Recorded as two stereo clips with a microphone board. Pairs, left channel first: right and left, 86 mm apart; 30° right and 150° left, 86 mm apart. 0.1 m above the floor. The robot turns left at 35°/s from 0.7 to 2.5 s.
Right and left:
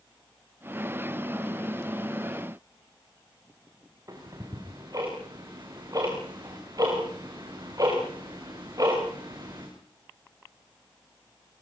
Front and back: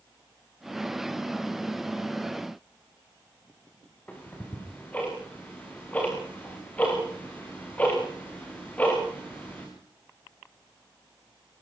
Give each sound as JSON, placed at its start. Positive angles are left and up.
{"t": 4.1, "sound": "ticking", "azimuth_deg": 40, "distance_m": 6.0}